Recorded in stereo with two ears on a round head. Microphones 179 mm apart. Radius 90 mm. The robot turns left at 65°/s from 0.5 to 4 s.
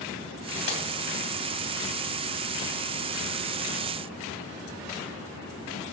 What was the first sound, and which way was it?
Breaking glass, 60° left (ahead or behind).